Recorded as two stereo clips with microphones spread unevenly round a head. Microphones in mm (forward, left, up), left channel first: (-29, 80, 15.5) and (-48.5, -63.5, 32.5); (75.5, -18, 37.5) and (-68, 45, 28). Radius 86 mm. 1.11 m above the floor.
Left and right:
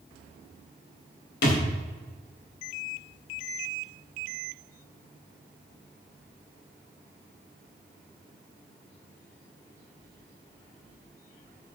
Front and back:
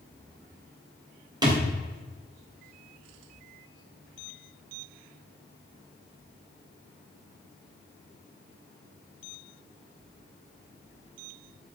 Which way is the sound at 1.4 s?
90° left.